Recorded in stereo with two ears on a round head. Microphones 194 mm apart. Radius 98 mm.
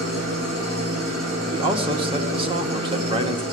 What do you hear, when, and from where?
0.0 s an engine running: 75° right (ahead or behind), 8.5 m
1.5 s a man speaking: 25° right (ahead or behind), 1.2 m